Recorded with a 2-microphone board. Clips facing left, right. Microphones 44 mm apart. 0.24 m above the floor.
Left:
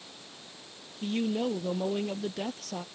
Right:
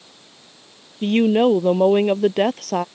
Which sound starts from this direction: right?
A woman speaking, at 1.0 s.